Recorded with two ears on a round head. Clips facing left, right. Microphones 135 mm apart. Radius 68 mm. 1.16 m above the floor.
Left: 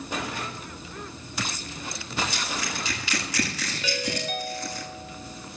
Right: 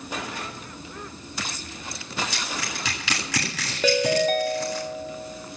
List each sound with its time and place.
2.3 s crushing: 55° right (ahead or behind), 9 m
3.8 s a ringtone: 40° right (ahead or behind), 1.1 m